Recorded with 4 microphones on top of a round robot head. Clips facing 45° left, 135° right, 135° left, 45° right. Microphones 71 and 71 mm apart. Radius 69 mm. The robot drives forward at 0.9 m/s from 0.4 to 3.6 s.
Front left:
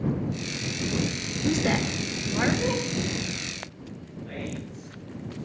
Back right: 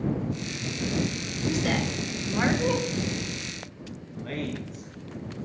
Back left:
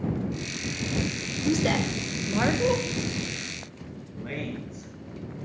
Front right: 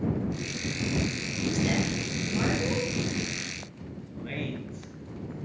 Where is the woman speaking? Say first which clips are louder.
Front left 2 dB, back left 3 dB; 105° left, 1.3 m; by 2.8 s 140° left, 2.0 m.